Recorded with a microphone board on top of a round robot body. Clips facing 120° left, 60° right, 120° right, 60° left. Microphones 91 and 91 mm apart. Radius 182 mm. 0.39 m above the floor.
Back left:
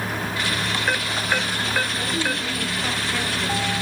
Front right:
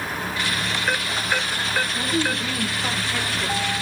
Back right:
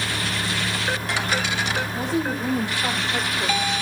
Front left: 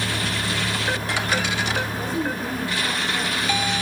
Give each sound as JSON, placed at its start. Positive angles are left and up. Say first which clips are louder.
{"t": 1.9, "sound": "a woman speaking", "louder": "front right 1 dB, back right 1 dB", "azimuth_deg": -140, "distance_m": 4.0}